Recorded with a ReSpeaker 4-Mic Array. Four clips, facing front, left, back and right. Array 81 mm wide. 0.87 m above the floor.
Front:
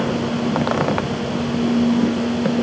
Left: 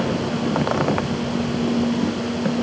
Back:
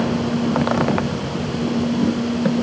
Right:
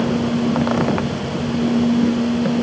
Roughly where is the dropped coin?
I don't hear a dropped coin.